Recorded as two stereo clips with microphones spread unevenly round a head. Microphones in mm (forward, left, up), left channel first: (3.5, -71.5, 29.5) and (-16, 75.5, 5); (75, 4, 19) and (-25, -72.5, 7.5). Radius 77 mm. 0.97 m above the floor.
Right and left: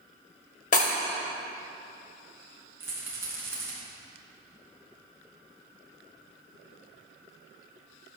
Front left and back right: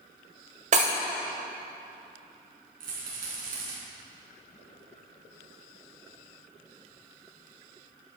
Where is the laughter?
I don't hear laughter.